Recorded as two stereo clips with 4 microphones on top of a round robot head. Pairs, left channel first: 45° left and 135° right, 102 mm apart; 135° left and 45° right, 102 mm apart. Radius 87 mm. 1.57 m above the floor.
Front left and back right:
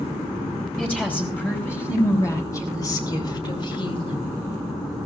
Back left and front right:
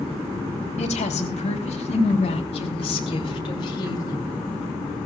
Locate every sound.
0.8 s a woman speaking: 120° left, 3.5 m; by 4.2 s 85° left, 3 m